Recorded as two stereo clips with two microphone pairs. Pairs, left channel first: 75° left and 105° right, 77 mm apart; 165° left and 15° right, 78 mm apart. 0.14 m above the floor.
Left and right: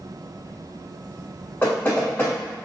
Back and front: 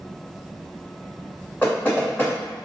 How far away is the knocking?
About 1.3 m.